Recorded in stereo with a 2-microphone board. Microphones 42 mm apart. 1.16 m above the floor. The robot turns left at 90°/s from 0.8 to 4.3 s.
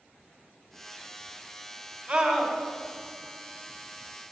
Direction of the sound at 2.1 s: 140° right.